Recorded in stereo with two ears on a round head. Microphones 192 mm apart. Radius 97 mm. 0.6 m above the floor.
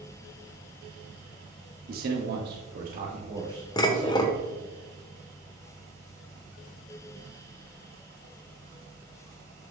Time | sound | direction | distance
1.9 | a man speaking | 45° right (ahead or behind) | 1.4 m
3.8 | dishes clattering | 20° left (ahead or behind) | 1.1 m